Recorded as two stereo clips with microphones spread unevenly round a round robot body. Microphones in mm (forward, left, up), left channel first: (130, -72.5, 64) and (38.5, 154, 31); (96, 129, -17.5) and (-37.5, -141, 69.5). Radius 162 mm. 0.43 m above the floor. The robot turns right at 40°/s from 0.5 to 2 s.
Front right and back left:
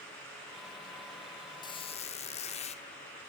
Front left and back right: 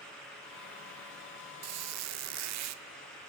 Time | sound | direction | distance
1.6 | a squeak | 140° right | 0.6 m